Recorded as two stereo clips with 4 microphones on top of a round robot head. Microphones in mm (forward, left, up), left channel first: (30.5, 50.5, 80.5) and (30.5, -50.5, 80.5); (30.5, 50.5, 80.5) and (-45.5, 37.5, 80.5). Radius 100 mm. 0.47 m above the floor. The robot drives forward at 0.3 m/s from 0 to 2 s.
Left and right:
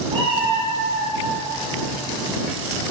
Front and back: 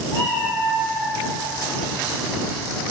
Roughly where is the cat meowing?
Ahead right.